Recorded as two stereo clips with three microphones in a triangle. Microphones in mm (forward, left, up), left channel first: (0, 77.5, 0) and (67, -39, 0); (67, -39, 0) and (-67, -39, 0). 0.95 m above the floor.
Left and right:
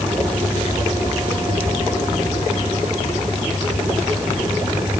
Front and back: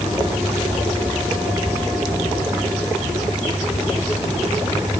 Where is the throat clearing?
I don't hear throat clearing.